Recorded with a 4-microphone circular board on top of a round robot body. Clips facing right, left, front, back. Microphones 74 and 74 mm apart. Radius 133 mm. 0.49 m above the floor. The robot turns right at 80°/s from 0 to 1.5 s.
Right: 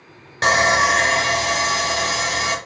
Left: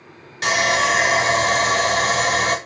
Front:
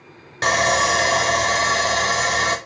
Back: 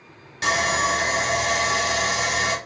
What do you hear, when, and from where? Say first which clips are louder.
0.4 s sawing: right 3 dB, front 4 dB; 45° right, 0.5 m; by 2.6 s 40° left, 0.5 m